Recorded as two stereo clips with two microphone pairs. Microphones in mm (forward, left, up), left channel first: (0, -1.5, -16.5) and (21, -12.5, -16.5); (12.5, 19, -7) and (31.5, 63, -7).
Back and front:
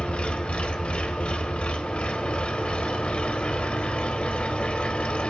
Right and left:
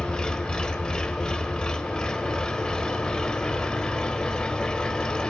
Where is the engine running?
170° left, 1.3 m.